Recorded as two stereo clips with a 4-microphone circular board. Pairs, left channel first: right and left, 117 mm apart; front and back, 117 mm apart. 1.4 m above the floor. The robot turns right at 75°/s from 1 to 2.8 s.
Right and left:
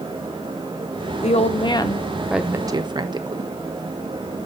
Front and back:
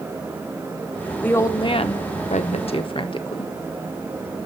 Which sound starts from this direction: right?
A woman speaking, at 1.2 s.